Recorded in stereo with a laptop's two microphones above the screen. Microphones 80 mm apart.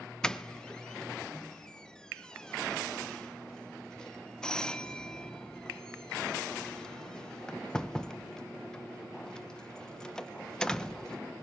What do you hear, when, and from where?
0.2 s a doorbell: 10° left (ahead or behind), 0.8 m